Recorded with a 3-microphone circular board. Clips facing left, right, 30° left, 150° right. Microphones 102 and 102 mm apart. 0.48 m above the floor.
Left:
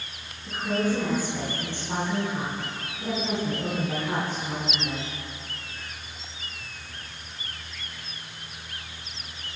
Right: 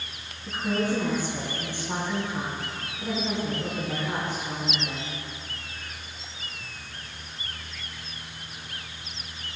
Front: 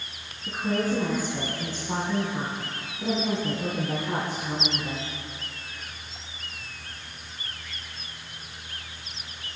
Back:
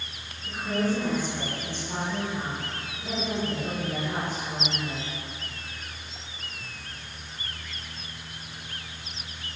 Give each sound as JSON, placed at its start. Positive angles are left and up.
{"t": 0.5, "sound": "a woman speaking", "azimuth_deg": -25, "distance_m": 4.0}